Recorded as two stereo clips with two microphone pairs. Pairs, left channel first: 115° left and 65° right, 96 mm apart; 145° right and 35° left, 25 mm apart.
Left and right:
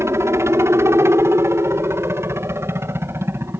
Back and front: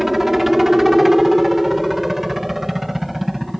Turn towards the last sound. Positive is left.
turn(degrees=-40)